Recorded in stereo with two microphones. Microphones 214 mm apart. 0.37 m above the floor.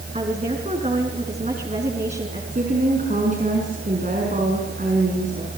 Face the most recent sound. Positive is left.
turn(degrees=-40)  # may be behind; listen again after turning